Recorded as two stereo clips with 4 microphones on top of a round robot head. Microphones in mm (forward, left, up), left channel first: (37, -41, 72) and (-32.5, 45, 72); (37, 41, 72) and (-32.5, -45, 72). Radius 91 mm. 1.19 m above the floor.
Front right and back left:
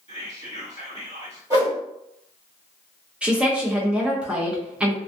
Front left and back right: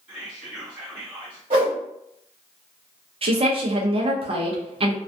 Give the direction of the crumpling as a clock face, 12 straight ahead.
I don't hear crumpling.